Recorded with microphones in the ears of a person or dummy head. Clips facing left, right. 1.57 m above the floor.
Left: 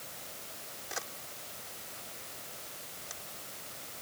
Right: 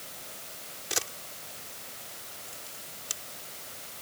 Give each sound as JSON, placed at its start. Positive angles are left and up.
{"t": 0.9, "sound": "a camera shutter", "side_deg": -45}